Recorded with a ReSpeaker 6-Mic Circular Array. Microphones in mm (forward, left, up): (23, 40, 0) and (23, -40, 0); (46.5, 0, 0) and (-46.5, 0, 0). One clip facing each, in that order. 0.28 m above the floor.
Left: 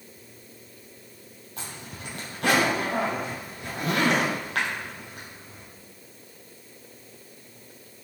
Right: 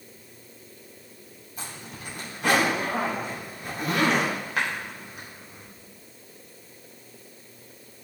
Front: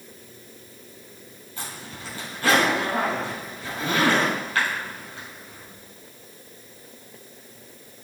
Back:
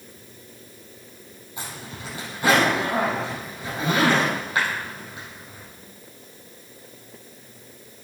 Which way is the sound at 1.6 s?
105° left.